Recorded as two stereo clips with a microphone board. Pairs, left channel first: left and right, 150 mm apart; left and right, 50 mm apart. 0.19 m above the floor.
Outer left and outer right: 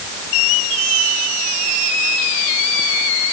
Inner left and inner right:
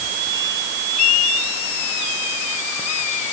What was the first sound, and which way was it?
Only background noise.